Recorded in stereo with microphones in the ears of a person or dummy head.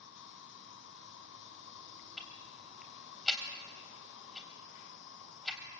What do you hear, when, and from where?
0.0 s an insect: 60° left (ahead or behind), 1.1 m
2.2 s ticking: 5° left (ahead or behind), 3 m